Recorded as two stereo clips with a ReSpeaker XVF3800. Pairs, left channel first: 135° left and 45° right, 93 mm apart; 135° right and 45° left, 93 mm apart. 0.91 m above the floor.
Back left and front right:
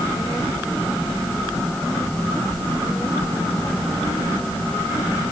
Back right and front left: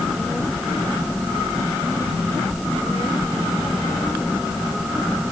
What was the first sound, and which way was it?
Only background noise.